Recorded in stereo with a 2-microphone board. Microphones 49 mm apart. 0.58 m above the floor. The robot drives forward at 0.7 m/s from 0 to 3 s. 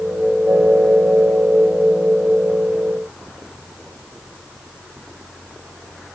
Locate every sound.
Only background noise.